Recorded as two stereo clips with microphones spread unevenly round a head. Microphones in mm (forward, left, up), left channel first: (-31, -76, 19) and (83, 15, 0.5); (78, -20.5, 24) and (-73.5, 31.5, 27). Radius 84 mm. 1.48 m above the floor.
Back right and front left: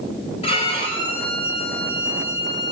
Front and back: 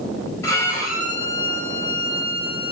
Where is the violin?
95° right, 4 m.